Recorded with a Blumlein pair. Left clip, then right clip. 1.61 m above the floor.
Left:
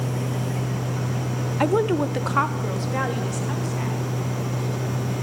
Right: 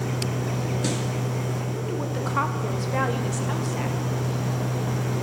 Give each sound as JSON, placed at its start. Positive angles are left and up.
{"t": 1.6, "sound": "a woman speaking", "azimuth_deg": 50, "distance_m": 0.6}